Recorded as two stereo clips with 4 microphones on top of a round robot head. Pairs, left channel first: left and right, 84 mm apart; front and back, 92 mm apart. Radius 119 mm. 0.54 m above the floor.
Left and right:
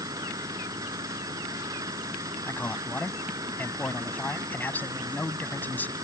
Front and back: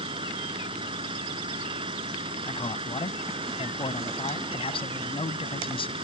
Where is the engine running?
145° right.